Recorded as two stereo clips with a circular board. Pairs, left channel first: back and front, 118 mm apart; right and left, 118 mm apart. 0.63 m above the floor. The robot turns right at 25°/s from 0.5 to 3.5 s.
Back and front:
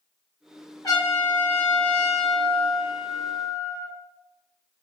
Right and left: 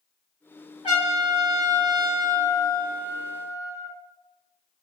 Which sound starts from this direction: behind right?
A trumpet, at 0.8 s.